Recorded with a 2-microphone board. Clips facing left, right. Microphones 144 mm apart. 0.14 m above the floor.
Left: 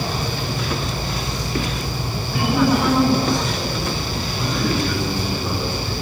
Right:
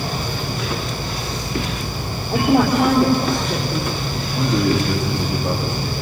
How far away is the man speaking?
About 8 m.